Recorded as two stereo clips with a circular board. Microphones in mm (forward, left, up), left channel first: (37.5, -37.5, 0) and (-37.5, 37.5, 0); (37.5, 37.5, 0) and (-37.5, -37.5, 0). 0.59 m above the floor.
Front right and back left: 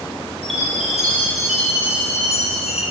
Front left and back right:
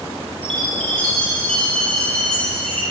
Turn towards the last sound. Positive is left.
turn(degrees=-35)